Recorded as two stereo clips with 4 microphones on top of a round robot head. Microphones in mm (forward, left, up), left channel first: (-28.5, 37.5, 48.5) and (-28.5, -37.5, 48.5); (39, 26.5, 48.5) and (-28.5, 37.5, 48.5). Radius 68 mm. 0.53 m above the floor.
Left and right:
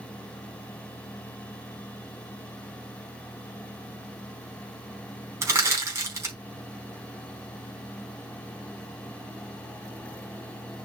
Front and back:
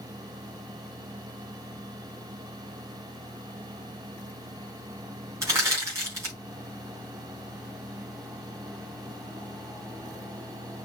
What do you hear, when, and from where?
5.4 s crushing: 140° right, 4.5 m